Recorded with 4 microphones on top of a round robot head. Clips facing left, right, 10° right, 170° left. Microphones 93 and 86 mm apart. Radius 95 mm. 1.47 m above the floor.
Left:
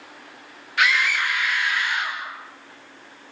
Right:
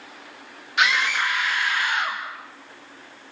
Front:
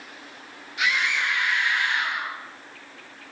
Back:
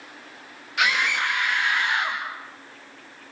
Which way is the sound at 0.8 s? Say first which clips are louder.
Even, back 2 dB; 160° right.